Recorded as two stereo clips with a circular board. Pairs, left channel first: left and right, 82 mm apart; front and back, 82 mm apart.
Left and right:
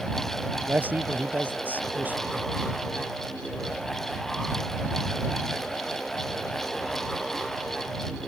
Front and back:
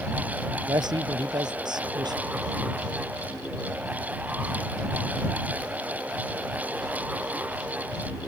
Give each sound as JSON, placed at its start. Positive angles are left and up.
{"t": 0.7, "sound": "a man speaking", "azimuth_deg": -160}